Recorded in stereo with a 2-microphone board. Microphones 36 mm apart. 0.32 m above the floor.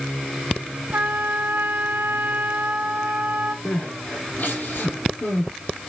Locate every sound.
0.9 s a trumpet: 70° right (ahead or behind), 0.9 m
3.6 s crying: 55° left (ahead or behind), 4 m